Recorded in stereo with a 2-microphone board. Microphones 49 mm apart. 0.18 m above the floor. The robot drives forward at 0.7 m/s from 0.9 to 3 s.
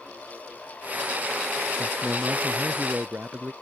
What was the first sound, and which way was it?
A man speaking, 45° right (ahead or behind).